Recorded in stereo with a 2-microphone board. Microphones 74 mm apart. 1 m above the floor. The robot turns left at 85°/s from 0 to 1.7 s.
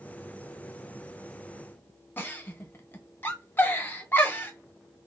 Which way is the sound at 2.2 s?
25° left (ahead or behind).